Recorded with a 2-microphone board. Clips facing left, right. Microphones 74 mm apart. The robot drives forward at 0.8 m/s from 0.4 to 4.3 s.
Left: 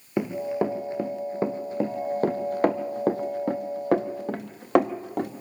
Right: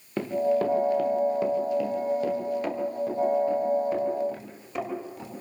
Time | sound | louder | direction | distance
0.2 | running footsteps | right 2 dB | 15° left (ahead or behind) | 2 m